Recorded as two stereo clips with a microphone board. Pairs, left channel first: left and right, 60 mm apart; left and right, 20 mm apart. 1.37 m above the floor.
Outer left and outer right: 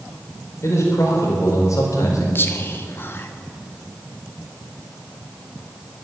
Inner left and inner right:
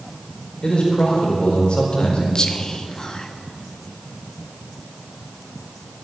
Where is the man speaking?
50° left (ahead or behind), 4.5 m; by 2.2 s 65° left (ahead or behind), 4 m.